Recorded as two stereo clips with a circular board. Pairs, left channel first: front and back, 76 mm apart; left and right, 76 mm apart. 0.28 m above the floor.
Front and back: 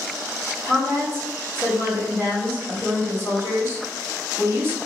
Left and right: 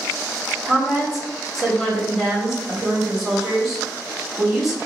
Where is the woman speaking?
175° right, 1.3 m.